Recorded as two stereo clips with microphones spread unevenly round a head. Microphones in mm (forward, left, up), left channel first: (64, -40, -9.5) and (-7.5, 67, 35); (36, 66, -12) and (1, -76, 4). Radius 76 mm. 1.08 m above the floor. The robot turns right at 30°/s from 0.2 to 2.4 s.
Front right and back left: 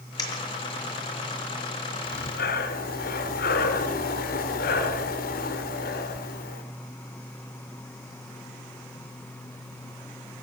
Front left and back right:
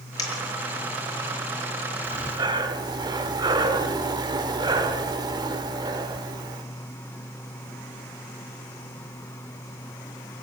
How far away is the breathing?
About 1.4 m.